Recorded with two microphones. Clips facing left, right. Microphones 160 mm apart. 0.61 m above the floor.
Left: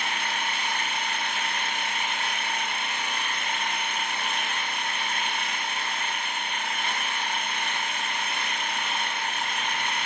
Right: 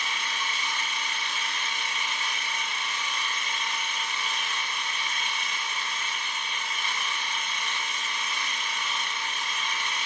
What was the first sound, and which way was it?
An engine running, 55° left (ahead or behind).